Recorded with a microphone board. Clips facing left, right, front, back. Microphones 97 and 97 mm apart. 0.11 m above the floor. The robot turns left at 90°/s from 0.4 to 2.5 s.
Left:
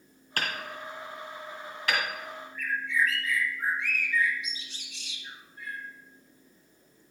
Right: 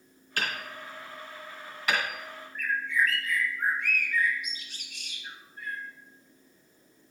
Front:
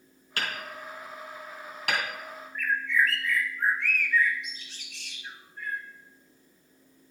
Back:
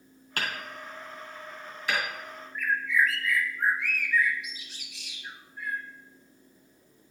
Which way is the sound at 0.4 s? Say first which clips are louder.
Even, even; 130° left.